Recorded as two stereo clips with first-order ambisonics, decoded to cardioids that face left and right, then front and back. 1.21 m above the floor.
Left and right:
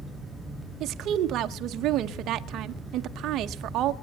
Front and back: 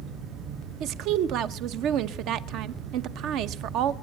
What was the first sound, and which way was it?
A woman speaking, 140° right.